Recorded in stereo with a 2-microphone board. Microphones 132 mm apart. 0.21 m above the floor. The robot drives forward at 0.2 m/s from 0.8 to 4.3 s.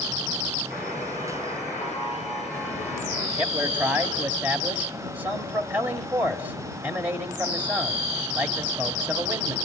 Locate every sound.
0.7 s a buzzer: 5° left (ahead or behind), 6.5 m
3.4 s a man speaking: 15° right (ahead or behind), 1.0 m